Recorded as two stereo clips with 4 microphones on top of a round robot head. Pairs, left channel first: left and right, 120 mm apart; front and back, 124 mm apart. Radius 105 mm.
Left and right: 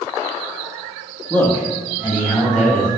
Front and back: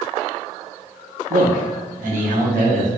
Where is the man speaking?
170° left, 1.2 m.